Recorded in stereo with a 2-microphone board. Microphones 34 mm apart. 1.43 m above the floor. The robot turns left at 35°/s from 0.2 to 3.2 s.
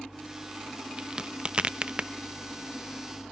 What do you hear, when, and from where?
1.0 s a crack: 20° right (ahead or behind), 0.7 m; by 2.1 s 30° right (ahead or behind), 0.7 m